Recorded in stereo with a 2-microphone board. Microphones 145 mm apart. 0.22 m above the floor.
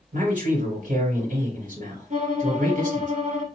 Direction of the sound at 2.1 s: 60° right (ahead or behind).